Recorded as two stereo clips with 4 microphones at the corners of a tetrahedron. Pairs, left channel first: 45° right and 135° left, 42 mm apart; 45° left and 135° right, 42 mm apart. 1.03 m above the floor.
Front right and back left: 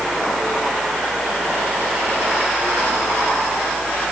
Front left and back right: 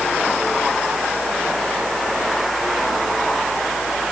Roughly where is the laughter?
I don't hear laughter.